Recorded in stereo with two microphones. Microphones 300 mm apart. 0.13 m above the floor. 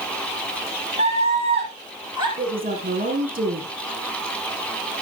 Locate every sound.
1.0 s a scream: 20° right (ahead or behind), 2.5 m; by 2.3 s 15° right (ahead or behind), 3.5 m
2.4 s a woman speaking: 30° right (ahead or behind), 3.5 m